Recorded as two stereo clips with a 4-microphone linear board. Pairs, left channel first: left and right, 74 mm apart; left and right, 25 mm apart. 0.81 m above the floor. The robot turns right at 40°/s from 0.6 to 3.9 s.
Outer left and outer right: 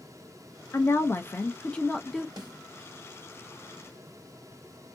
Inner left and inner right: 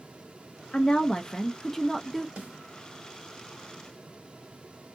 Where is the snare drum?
70° right (ahead or behind), 1.3 m; by 2.6 s 80° right, 1.3 m.